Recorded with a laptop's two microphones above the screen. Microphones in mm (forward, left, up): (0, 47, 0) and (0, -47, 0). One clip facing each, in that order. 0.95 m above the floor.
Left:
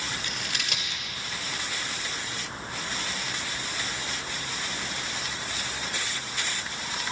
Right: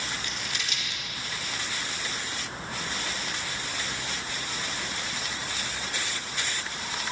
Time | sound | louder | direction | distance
0.1 | scissors | left 1 dB | 65° left (ahead or behind) | 1.9 m